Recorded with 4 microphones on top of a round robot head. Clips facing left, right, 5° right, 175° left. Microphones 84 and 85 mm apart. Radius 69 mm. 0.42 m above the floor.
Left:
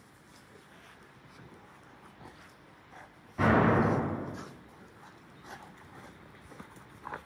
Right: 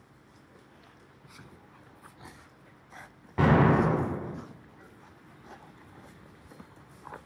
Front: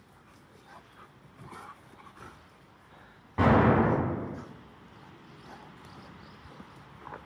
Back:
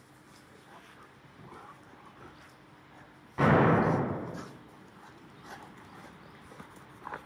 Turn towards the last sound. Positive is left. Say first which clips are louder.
# right 2 dB, front 1 dB
turn(degrees=-75)